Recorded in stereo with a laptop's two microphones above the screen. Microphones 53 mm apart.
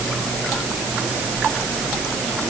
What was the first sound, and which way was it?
Only background noise.